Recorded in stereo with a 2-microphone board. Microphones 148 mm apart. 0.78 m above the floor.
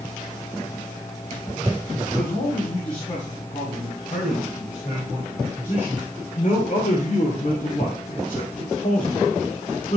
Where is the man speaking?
40° left (ahead or behind), 6.5 m; by 10.0 s 45° left (ahead or behind), 2.5 m.